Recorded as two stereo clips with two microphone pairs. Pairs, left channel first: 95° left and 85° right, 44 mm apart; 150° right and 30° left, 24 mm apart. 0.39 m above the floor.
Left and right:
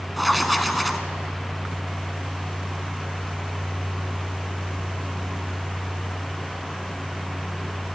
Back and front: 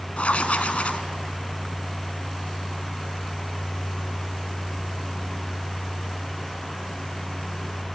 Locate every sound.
0.2 s writing: 175° right, 1.2 m